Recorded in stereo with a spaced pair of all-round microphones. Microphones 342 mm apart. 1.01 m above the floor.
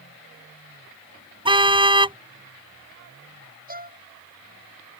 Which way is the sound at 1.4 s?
15° right (ahead or behind).